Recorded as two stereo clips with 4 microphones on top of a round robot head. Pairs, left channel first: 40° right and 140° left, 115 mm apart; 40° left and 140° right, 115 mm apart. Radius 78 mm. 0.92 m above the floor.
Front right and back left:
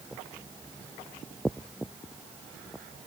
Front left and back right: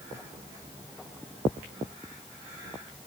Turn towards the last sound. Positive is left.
No sound to turn to.